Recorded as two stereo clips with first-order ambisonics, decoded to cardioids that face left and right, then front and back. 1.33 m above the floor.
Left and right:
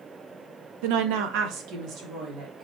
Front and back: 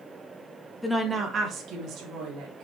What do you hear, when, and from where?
0.8 s a woman speaking: 85° right, 1.2 m; by 2.6 s 145° right, 3 m